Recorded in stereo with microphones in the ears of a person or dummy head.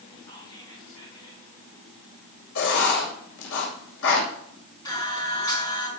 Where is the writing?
80° left, 7.5 m.